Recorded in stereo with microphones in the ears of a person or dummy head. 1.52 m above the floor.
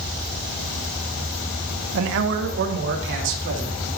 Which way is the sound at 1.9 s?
70° right (ahead or behind).